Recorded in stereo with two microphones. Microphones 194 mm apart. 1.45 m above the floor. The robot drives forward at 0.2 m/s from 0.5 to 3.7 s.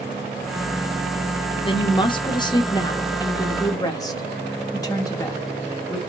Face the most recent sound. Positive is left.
turn(degrees=20)  # may be behind; listen again after turning